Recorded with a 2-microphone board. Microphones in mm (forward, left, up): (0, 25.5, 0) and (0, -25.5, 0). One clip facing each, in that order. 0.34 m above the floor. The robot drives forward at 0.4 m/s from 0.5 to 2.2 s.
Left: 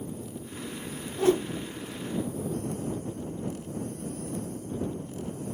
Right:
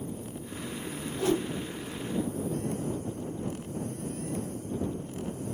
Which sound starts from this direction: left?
A whoosh, at 1.2 s.